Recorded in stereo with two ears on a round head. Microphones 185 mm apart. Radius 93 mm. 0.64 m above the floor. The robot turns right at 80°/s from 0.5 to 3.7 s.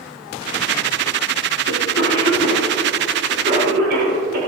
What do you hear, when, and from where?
1.7 s a cough: 70° left (ahead or behind), 6 m; by 4.4 s 55° right (ahead or behind), 6 m